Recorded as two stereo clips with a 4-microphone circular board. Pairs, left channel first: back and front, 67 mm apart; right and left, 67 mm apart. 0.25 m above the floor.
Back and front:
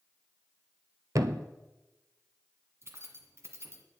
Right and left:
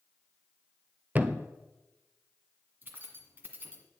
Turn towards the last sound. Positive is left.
turn(degrees=35)